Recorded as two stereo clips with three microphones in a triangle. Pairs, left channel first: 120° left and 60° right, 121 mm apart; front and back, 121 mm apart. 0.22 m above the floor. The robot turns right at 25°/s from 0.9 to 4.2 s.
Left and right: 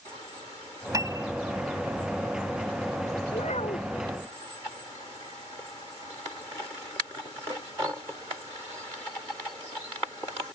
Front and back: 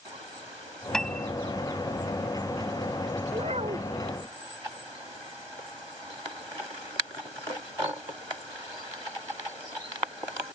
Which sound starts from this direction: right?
A piano, at 0.9 s.